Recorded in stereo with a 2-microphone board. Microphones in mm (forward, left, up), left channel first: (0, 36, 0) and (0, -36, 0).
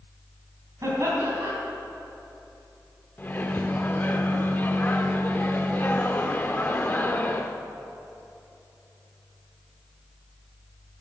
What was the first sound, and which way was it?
Laughter, 45° right (ahead or behind).